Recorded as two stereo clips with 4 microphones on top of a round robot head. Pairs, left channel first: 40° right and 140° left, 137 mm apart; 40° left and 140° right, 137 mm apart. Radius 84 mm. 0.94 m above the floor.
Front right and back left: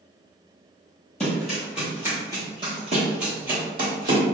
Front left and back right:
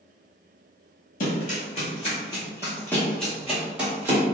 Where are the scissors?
I don't hear scissors.